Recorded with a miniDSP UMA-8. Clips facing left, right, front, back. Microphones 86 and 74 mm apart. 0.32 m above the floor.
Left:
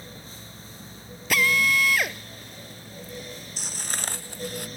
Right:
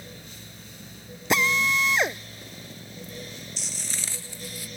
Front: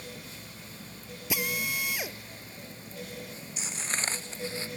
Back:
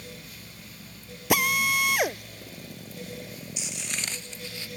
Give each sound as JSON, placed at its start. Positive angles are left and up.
{"t": 1.3, "sound": "a drill", "azimuth_deg": -155}
{"t": 3.6, "sound": "footsteps", "azimuth_deg": 50}